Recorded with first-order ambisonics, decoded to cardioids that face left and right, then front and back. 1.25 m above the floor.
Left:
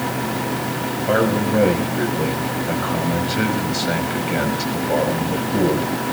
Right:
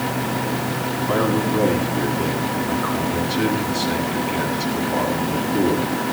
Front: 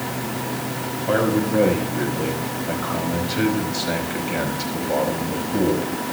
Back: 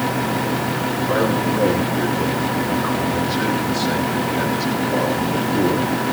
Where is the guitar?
No guitar in this recording.